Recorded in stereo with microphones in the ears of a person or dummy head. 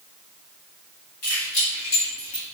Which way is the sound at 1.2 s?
70° left (ahead or behind).